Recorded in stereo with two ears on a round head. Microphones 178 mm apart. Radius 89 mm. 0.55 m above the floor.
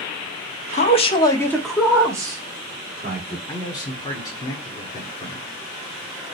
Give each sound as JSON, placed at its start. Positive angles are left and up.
{"t": 0.7, "sound": "a man speaking", "side_deg": 35, "distance_m": 0.8}
{"t": 3.5, "sound": "a man speaking", "side_deg": 20, "distance_m": 1.5}